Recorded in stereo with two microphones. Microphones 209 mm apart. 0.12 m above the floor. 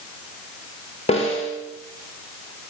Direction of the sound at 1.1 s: 30° left (ahead or behind).